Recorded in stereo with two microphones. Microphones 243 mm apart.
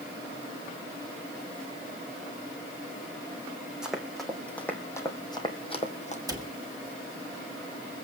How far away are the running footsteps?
About 2.5 m.